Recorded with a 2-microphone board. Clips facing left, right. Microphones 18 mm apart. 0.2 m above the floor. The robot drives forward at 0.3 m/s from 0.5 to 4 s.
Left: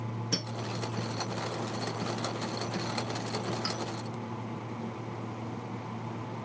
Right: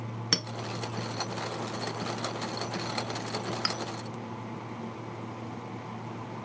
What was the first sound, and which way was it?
A clink, 60° right (ahead or behind).